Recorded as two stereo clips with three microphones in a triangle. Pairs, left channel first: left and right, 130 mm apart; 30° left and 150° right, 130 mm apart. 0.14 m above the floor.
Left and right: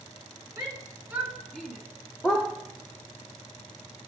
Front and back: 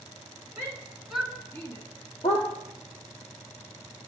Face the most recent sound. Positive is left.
turn(degrees=0)